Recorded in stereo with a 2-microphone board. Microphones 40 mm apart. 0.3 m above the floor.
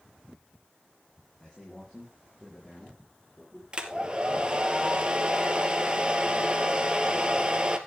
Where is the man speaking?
10° left (ahead or behind), 7 m.